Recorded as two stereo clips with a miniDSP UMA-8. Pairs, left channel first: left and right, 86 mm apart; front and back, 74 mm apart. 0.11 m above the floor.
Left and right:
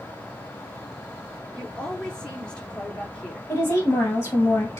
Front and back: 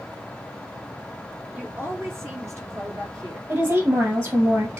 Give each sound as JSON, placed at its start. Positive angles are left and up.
{"t": 1.5, "sound": "a woman speaking", "azimuth_deg": 160, "distance_m": 1.6}
{"t": 3.5, "sound": "a woman speaking", "azimuth_deg": 145, "distance_m": 3.0}